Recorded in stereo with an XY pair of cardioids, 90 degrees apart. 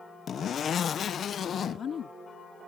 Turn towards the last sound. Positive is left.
turn(degrees=60)